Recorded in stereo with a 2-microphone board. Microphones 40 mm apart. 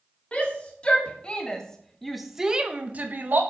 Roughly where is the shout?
Left.